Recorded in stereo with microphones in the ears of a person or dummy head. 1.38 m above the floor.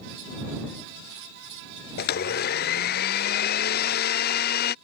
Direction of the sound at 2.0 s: 40° left (ahead or behind).